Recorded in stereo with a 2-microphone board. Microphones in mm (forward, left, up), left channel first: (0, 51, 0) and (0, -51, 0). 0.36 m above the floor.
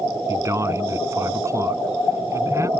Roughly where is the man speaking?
Right.